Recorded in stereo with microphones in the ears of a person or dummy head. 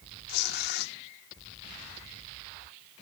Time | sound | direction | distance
0.3 | tearing paper | 55° left (ahead or behind) | ?